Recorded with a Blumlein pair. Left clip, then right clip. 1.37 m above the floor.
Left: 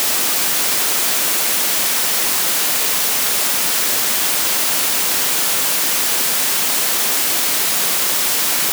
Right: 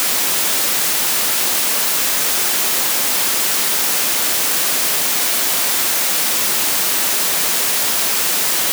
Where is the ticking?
No ticking in this recording.